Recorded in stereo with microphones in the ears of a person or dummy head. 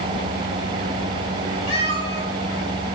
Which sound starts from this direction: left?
A cat meowing, at 1.7 s.